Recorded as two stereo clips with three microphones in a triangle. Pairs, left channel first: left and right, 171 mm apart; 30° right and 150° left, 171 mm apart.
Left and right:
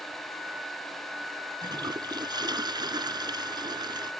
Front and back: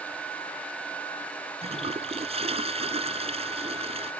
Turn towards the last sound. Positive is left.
turn(degrees=-155)